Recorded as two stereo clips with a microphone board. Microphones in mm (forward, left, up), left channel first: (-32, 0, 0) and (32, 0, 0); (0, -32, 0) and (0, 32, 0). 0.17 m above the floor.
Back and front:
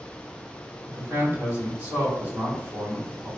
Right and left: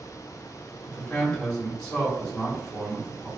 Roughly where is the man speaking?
Ahead.